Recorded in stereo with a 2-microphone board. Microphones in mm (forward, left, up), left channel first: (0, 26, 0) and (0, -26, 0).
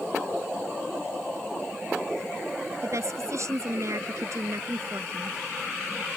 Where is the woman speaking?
65° right (ahead or behind).